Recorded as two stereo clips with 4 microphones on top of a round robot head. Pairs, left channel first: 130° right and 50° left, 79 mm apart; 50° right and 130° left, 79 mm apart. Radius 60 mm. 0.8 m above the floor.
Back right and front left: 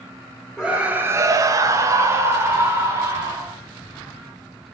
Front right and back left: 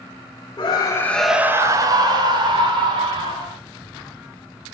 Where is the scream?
35° right, 0.7 m; by 3.5 s 110° left, 2 m.